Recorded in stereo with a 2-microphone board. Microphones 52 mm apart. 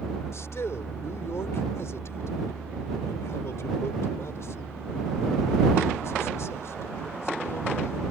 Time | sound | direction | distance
0.3 | a man speaking | 65° left (ahead or behind) | ?